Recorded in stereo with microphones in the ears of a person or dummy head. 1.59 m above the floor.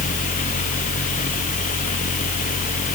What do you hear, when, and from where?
0.0 s a fan: 40° left (ahead or behind), 1.7 m